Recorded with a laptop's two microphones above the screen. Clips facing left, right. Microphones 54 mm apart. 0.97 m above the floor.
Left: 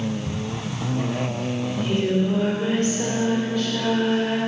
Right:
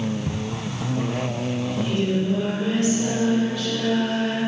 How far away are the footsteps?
About 5 m.